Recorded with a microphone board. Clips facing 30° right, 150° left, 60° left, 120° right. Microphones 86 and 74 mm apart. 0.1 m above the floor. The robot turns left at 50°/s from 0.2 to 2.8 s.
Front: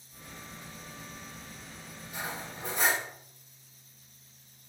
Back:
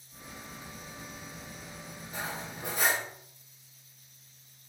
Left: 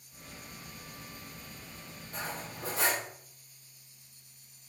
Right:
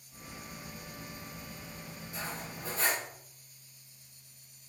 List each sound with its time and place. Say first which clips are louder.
2.1 s cutlery clinking: even, left 2 dB; 95° left, 3 m; by 3.0 s 65° left, 3 m